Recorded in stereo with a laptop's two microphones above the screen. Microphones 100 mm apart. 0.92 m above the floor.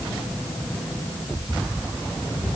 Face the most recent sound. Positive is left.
No sound to turn to.